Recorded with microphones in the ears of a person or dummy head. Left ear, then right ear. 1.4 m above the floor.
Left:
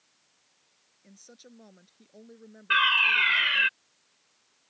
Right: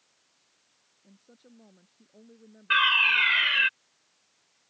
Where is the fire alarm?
Centre (ahead or behind).